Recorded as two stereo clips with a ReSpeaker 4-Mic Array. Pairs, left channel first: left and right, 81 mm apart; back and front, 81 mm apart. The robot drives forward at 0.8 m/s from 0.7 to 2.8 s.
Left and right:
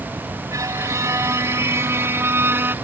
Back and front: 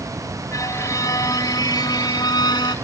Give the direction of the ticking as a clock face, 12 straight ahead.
No ticking in this recording.